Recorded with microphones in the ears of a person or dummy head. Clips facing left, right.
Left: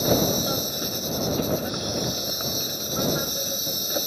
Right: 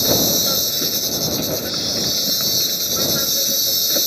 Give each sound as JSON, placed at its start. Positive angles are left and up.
{"t": 0.0, "sound": "an insect", "side_deg": -25}